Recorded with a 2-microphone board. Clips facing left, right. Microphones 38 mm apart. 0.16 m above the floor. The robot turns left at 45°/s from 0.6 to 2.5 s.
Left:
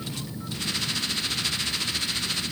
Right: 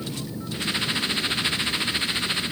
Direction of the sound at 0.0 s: 50° right.